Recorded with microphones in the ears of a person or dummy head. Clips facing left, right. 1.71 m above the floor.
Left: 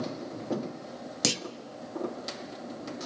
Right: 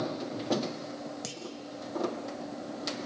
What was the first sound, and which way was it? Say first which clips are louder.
A clunk: left 8 dB; 85° left.